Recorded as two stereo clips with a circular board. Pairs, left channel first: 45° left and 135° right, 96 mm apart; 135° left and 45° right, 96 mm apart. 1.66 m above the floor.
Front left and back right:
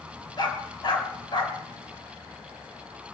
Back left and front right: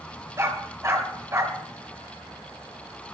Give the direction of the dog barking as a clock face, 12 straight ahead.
12 o'clock.